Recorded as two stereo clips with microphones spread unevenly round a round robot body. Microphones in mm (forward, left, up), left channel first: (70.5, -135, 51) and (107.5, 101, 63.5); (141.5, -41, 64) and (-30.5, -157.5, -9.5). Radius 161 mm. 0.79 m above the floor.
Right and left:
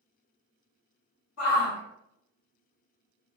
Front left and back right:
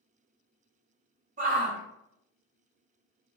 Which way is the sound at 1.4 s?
110° right.